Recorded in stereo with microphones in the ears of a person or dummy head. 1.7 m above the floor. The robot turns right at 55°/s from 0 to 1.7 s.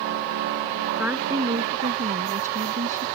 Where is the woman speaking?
Straight behind; by 3.1 s 140° right.